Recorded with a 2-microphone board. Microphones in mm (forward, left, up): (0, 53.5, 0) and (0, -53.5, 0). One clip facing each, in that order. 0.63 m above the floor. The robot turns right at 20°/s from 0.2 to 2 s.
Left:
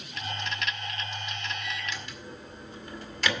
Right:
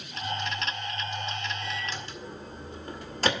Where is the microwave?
40° right (ahead or behind), 1.9 m; by 3.3 s 35° right (ahead or behind), 1.9 m.